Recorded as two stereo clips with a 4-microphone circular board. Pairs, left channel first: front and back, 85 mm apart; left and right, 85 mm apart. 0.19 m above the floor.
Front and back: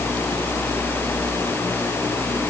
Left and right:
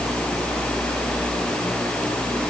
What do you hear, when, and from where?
Only background noise.